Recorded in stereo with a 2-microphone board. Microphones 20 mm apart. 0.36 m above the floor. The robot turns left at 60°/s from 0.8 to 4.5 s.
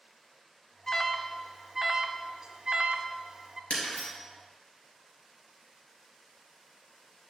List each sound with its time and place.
0.9 s an alarm: 15° left (ahead or behind), 0.6 m; by 3.6 s 25° right (ahead or behind), 0.6 m
3.7 s breaking glass: 65° left (ahead or behind), 3 m; by 4.1 s 85° left, 3 m